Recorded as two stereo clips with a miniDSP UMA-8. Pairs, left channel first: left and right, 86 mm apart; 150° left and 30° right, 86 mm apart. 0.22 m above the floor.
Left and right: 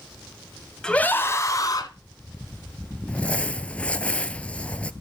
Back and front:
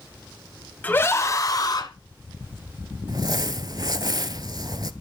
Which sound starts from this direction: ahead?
Crumpling, at 3.1 s.